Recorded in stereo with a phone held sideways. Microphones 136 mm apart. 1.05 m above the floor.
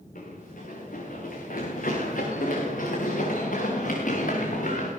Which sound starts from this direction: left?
Running footsteps, at 0.1 s.